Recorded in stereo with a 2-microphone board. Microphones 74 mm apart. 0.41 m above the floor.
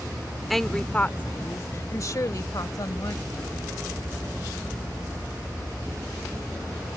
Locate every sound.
0.5 s a woman speaking: centre (ahead or behind); by 3.8 s 65° left (ahead or behind)